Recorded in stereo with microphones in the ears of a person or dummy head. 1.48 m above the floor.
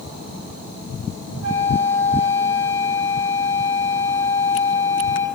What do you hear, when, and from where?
1.4 s a flute: 50° right (ahead or behind), 3.5 m